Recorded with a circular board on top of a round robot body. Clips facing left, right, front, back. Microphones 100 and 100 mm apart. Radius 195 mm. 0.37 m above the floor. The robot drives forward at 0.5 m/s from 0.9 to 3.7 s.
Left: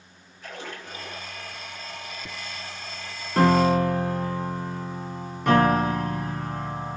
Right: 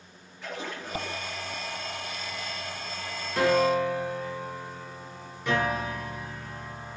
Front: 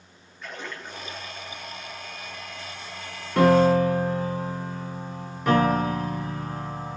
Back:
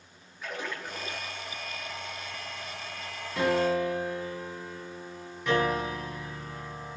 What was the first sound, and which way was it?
A splash, 95° right.